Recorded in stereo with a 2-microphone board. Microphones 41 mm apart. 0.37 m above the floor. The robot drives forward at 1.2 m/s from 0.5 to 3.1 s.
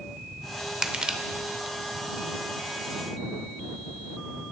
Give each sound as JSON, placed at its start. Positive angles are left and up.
{"t": 0.8, "sound": "crushing", "side_deg": -20, "distance_m": 0.6}